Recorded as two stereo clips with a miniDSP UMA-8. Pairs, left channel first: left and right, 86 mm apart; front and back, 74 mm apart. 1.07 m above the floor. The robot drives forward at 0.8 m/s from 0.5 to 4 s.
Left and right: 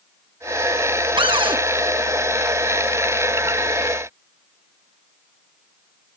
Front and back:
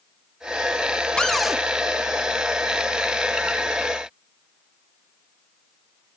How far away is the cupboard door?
About 0.8 m.